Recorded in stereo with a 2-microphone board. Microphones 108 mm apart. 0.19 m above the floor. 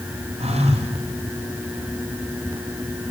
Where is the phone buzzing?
85° right, 6.5 m.